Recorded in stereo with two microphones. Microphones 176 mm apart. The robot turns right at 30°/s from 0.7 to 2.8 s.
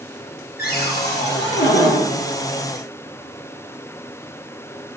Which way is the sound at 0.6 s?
65° left.